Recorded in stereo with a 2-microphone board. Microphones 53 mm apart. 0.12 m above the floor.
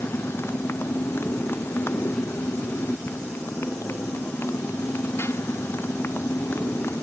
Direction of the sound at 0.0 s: 50° left (ahead or behind).